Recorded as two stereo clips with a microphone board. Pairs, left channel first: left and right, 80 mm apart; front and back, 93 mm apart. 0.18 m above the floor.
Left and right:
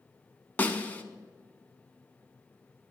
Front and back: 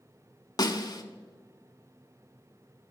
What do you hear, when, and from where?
0.6 s a snare drum: 25° left, 0.6 m